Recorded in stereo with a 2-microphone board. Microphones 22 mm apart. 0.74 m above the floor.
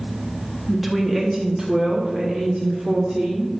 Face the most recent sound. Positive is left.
turn(degrees=-45)  # may be behind; listen again after turning